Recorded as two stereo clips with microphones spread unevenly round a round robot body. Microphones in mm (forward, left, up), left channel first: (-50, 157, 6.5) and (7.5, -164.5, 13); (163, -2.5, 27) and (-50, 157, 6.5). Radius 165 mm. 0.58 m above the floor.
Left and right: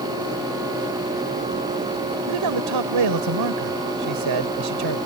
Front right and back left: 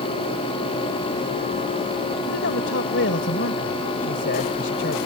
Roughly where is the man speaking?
Right.